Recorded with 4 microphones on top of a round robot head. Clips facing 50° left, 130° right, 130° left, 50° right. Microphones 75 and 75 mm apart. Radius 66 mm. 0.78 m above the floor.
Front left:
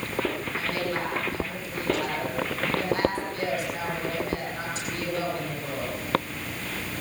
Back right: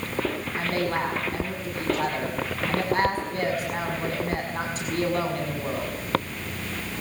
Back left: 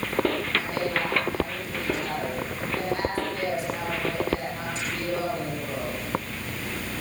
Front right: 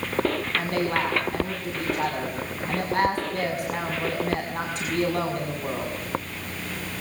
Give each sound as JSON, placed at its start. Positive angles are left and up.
{"t": 0.6, "sound": "a woman speaking", "azimuth_deg": -85, "distance_m": 6.0}